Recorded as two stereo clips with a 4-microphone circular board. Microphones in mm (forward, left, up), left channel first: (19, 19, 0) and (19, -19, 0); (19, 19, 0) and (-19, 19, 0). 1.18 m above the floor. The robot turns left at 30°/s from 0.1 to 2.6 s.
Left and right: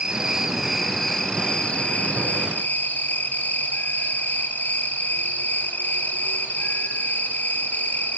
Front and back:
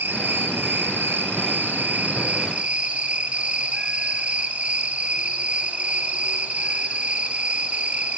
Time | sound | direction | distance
0.0 | an insect | 160° right | 3 m